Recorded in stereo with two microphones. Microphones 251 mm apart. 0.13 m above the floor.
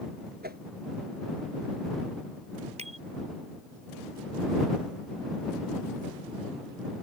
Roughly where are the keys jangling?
No keys jangling in this recording.